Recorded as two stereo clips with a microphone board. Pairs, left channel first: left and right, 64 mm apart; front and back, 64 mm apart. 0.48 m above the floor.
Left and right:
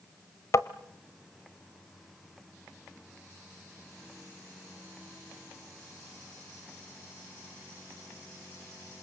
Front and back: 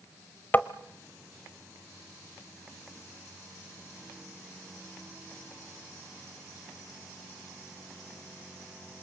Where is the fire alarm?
I don't hear a fire alarm.